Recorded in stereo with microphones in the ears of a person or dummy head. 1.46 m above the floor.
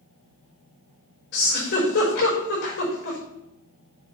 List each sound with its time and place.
1.3 s a giggle: 60° left (ahead or behind), 5 m